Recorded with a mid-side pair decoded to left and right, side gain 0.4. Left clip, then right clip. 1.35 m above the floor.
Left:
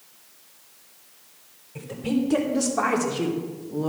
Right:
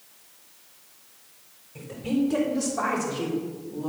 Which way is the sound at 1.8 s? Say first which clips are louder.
Left 1 dB; 25° left.